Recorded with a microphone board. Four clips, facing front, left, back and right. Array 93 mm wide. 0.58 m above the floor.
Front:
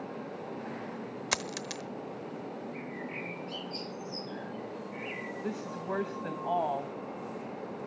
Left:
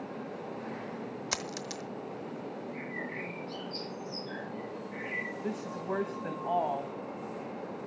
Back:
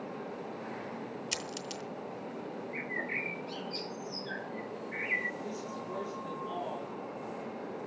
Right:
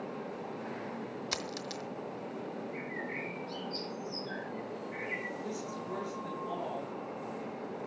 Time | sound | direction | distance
1.3 | a dropped coin | 5° left | 1.0 m
2.7 | a bird | straight behind | 4.5 m
5.4 | a woman speaking | 40° left | 3.5 m